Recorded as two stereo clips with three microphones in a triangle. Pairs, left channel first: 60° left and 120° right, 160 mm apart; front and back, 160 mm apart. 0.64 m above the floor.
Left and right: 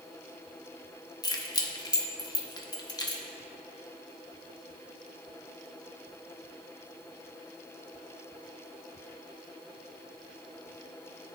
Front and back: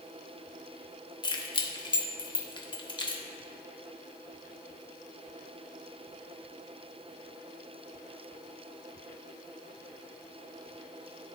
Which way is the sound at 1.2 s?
25° left.